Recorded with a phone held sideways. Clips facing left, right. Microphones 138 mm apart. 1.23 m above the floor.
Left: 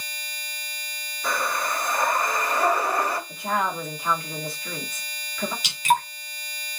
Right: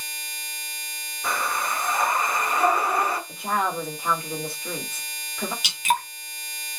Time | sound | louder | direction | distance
1.2 | breathing | even | 15° right (ahead or behind) | 3.5 m
3.3 | a woman speaking | even | 25° right (ahead or behind) | 2.0 m
5.6 | dripping | left 3 dB | 10° right (ahead or behind) | 2 m